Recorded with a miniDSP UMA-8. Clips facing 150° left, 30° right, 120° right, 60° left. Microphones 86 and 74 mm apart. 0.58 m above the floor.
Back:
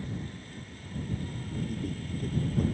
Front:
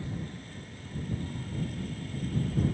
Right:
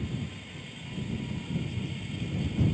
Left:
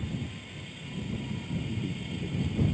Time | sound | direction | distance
1.7 | a man speaking | 115° left | ?